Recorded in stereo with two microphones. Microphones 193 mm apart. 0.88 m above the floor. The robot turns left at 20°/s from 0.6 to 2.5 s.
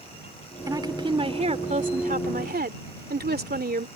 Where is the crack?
No crack in this recording.